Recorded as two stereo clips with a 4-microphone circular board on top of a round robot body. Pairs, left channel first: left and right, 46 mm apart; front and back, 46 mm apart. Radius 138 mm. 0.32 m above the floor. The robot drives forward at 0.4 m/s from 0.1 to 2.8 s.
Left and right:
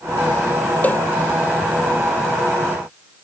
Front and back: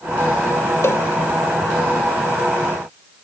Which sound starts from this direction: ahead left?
A cowbell, at 0.8 s.